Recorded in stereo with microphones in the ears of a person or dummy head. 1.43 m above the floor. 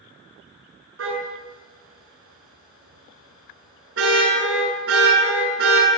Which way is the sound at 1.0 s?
85° right.